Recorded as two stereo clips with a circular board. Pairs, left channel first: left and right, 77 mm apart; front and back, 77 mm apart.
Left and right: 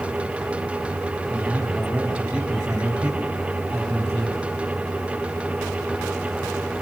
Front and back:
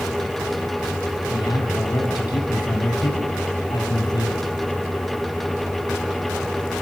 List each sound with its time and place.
1.3 s a man speaking: 30° right, 7.5 m; by 4.5 s 25° right, 5 m